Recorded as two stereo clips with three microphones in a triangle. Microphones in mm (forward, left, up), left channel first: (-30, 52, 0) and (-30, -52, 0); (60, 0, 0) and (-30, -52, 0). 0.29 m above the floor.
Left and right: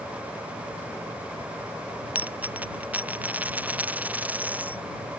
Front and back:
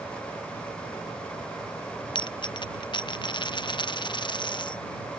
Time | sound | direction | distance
2.1 | a dropped coin | 15° right | ?